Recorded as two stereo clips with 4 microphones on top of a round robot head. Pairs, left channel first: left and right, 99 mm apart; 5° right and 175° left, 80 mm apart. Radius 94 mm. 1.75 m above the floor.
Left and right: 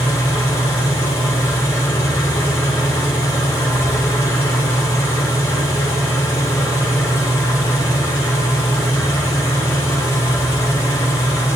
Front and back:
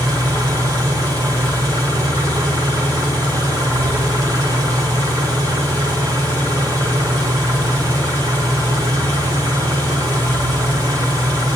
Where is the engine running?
150° left, 3 m.